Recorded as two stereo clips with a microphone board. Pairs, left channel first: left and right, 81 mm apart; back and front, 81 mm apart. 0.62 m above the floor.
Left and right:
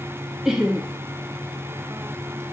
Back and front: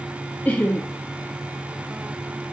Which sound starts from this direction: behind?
Laughter, at 0.5 s.